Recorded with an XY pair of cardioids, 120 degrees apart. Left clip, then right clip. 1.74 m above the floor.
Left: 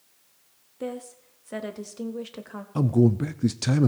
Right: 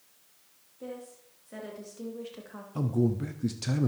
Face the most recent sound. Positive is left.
turn(degrees=40)